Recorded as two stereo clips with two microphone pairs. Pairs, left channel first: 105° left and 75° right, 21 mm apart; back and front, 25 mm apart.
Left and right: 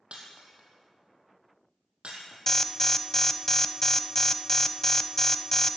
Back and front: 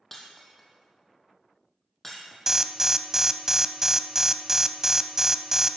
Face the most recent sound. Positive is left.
turn(degrees=50)